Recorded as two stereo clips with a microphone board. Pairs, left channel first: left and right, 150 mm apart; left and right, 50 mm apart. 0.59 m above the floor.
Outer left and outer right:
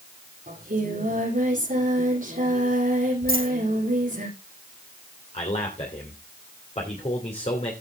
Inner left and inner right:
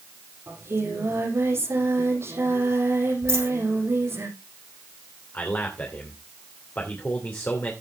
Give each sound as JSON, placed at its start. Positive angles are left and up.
{"t": 0.5, "sound": "singing", "side_deg": -65, "distance_m": 7.0}
{"t": 3.3, "sound": "a dropped coin", "side_deg": -75, "distance_m": 7.5}
{"t": 5.3, "sound": "a man speaking", "side_deg": 45, "distance_m": 2.5}